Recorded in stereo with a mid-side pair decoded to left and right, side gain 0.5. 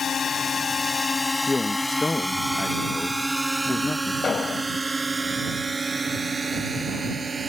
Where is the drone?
45° left; by 7.5 s 30° right.